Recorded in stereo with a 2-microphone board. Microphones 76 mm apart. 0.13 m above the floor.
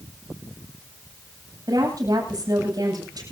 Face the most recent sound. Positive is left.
turn(degrees=-60)  # may be behind; listen again after turning